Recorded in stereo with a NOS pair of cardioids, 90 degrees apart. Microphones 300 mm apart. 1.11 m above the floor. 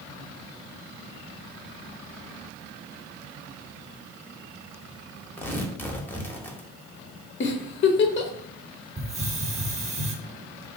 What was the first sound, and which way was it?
Tearing paper, 5° left.